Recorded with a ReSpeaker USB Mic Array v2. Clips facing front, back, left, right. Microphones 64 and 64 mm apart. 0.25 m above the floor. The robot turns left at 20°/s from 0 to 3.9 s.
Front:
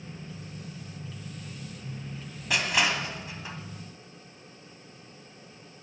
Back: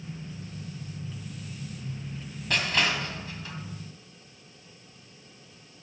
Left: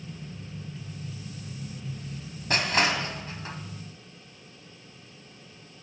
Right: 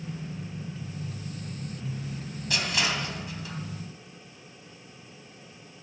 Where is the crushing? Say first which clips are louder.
Even, left 4 dB; 80° left, 1.8 m; by 3.6 s 60° left, 1.8 m.